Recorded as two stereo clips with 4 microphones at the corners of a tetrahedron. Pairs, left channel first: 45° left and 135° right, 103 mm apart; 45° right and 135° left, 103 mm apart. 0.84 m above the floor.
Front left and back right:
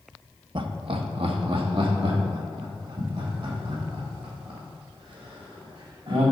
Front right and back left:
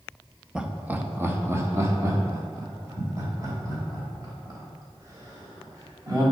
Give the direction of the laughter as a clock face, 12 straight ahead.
5 o'clock.